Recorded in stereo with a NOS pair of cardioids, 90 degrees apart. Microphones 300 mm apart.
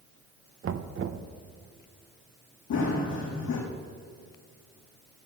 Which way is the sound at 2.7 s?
70° left.